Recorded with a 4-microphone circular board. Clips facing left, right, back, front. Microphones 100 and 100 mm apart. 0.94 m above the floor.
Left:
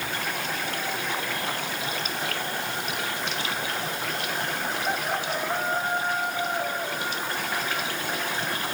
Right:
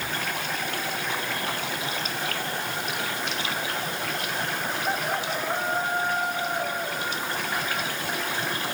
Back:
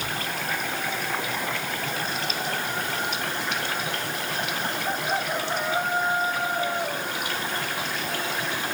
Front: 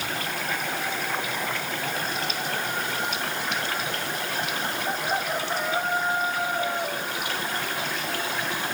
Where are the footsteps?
No footsteps in this recording.